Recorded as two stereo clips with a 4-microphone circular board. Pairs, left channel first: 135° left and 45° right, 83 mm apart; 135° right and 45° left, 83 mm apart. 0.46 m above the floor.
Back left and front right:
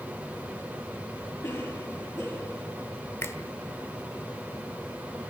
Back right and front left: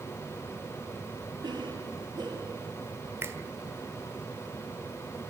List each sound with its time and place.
1.4 s a cough: 80° left, 9.5 m
3.2 s a finger snap: 90° left, 1.5 m